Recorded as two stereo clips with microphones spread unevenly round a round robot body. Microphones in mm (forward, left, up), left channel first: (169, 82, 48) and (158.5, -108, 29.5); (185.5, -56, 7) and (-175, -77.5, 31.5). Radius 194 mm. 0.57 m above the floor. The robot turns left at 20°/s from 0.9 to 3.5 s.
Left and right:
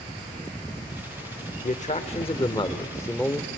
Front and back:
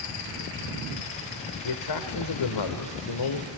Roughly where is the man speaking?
Ahead left.